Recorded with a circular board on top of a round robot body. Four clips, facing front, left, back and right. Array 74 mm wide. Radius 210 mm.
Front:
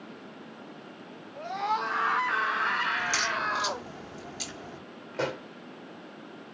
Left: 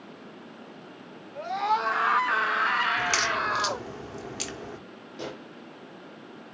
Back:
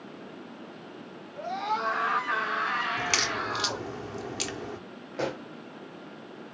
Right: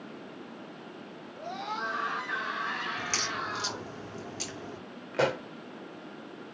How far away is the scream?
About 4 m.